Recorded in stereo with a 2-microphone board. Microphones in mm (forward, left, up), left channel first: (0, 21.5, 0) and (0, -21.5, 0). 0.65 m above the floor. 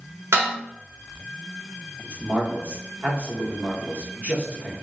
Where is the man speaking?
35° right (ahead or behind), 1.1 m.